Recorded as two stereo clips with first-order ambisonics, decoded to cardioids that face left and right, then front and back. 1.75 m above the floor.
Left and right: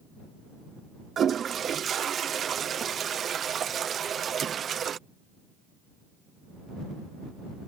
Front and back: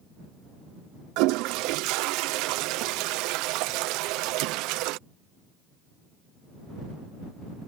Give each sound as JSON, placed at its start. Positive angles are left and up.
{"t": 1.2, "sound": "a toilet flushing", "azimuth_deg": -155}